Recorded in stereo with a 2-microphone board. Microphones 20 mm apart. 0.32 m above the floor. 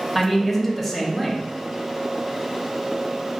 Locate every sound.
0.1 s a man speaking: 15° left (ahead or behind), 0.9 m